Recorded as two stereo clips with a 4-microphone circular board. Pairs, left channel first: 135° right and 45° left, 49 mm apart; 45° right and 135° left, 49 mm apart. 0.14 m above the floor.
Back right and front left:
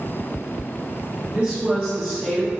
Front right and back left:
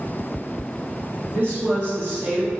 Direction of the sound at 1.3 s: 110° left.